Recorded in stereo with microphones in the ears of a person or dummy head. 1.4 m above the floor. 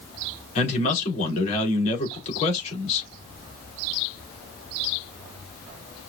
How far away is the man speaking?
About 4 m.